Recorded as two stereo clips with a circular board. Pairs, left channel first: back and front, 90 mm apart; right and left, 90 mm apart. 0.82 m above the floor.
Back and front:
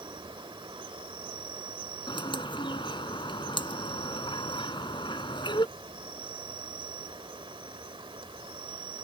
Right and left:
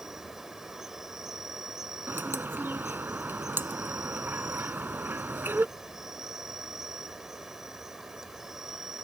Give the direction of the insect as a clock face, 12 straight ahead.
12 o'clock.